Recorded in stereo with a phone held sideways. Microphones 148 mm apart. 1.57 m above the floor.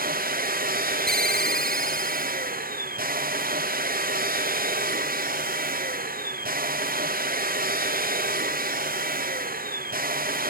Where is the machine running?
80° right, 0.8 m.